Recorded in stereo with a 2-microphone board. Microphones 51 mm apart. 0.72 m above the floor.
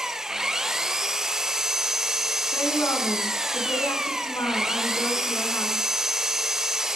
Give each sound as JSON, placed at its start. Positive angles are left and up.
{"t": 0.0, "sound": "an engine running", "side_deg": -10, "distance_m": 1.2}
{"t": 2.5, "sound": "a woman speaking", "side_deg": 85, "distance_m": 10.0}